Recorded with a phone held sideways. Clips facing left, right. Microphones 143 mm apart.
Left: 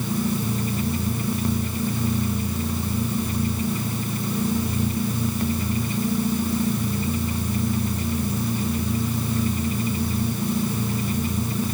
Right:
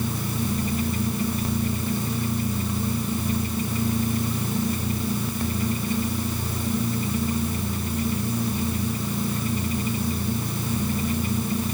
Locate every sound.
Only background noise.